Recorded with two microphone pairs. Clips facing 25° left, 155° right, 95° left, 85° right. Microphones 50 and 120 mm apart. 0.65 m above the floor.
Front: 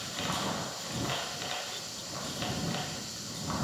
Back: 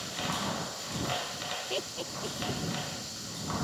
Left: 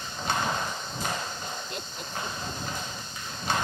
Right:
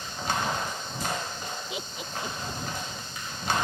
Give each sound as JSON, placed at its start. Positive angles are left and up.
{"t": 1.7, "sound": "laughter", "azimuth_deg": -175}